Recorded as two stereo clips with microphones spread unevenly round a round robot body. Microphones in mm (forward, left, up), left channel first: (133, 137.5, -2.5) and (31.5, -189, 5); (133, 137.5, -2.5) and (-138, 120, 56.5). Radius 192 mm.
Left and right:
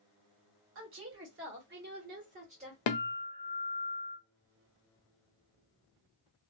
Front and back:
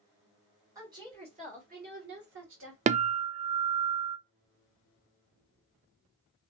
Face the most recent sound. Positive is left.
turn(degrees=110)